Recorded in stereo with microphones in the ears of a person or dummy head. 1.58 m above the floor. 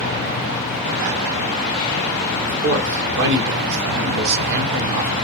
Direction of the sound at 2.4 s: 60° right (ahead or behind).